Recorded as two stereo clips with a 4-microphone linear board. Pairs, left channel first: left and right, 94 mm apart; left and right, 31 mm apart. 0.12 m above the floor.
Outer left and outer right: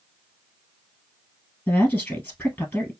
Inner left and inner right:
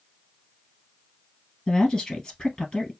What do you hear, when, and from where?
1.7 s a woman speaking: 20° left (ahead or behind), 1.9 m